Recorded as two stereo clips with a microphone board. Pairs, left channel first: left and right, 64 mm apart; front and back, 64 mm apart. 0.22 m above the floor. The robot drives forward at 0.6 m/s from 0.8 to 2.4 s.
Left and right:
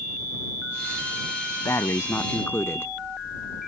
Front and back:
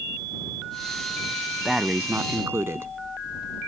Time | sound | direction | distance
1.6 | breathing | 95° left | ?